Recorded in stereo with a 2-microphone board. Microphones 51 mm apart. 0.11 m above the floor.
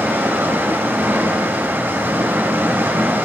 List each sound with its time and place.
0.0 s running water: 50° right (ahead or behind), 4 m